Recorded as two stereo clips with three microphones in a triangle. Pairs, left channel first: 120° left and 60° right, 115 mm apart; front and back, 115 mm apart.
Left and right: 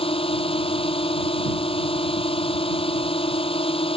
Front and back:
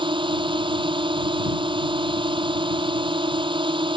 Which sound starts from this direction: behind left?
A drone, at 0.0 s.